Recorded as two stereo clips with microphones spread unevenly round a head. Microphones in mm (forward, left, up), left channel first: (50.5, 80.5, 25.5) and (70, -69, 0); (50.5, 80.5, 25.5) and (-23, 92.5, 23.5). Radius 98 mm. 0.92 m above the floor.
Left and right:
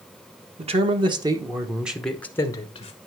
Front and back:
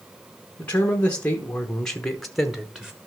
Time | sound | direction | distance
0.6 | a man speaking | 75° right | 1.3 m